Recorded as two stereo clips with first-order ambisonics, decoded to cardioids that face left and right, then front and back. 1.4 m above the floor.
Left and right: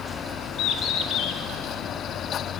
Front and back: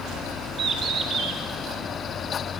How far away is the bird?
About 1.0 m.